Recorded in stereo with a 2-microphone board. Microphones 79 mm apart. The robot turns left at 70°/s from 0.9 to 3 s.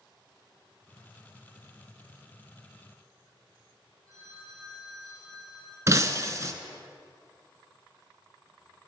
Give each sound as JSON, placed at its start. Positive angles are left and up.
{"t": 4.1, "sound": "a phone ringing", "side_deg": -40, "distance_m": 4.0}
{"t": 5.9, "sound": "breaking glass", "side_deg": -40, "distance_m": 0.6}